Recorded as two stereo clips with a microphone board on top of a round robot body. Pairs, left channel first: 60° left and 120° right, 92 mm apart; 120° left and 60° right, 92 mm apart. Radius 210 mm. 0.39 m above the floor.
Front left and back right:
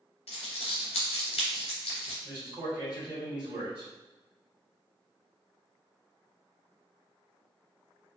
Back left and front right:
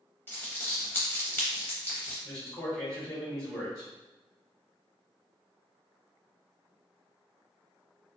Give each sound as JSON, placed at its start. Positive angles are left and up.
{"t": 0.3, "sound": "crumpling", "azimuth_deg": 50, "distance_m": 0.5}
{"t": 2.2, "sound": "a man speaking", "azimuth_deg": 180, "distance_m": 2.0}